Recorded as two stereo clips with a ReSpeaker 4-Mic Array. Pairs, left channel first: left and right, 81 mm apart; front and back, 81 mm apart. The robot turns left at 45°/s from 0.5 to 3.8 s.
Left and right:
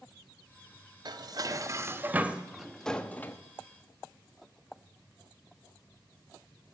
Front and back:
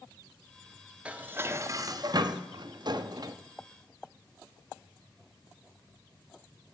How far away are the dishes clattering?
About 0.6 m.